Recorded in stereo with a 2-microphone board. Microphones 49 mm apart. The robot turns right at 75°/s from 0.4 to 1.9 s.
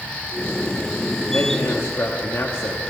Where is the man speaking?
60° left, 1.3 m; by 2.9 s 105° left, 1.3 m.